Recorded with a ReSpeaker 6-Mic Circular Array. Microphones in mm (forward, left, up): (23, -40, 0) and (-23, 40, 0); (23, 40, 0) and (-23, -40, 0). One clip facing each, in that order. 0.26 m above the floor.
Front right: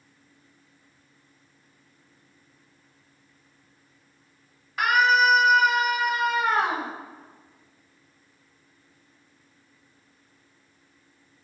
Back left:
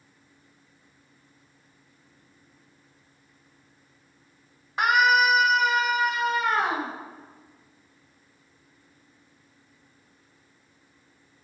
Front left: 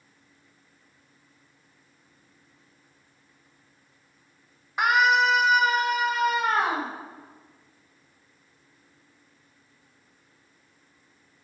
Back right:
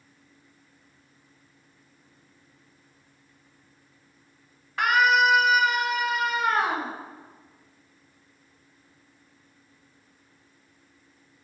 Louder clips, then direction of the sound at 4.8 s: Even, even; 105° left.